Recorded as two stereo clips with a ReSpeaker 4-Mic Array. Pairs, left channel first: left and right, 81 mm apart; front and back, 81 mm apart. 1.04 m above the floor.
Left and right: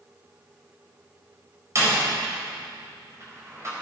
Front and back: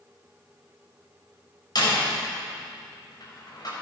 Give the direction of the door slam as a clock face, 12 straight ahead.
1 o'clock.